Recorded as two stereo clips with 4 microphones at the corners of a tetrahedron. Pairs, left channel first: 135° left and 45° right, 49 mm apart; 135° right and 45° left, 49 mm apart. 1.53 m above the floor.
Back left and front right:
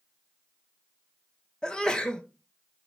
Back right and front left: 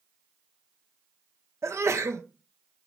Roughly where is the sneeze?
Ahead left.